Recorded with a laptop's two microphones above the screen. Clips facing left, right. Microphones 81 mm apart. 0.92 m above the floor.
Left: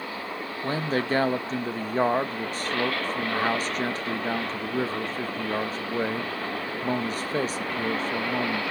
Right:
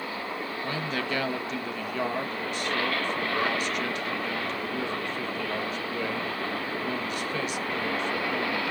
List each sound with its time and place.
0.6 s a man speaking: 35° left (ahead or behind), 0.8 m